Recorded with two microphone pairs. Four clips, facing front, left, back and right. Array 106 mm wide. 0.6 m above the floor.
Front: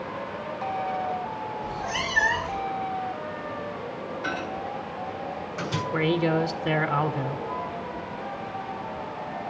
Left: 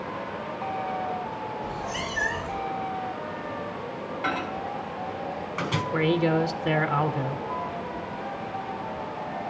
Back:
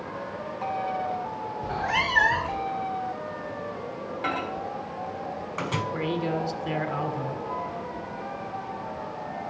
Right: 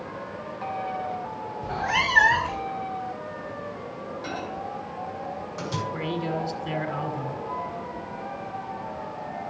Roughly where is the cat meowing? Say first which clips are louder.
Right 6 dB, back 7 dB; behind right.